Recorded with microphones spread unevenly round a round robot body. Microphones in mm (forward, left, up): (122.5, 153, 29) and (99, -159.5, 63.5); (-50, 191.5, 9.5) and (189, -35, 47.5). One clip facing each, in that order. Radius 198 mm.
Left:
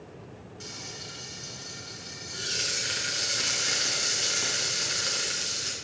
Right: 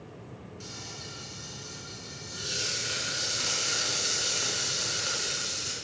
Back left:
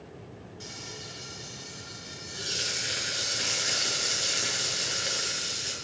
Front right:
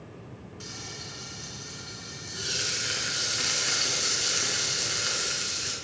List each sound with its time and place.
0.6 s frying: 25° left, 6 m